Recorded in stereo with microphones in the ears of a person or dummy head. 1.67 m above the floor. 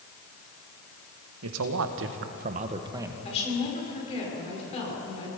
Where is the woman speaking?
30° left (ahead or behind), 6 m.